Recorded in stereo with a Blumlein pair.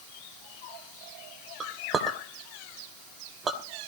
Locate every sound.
1.6 s a clink: 20° right, 2.5 m